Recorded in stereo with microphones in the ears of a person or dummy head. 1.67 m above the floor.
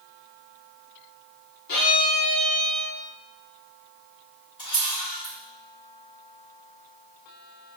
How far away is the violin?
About 1.7 m.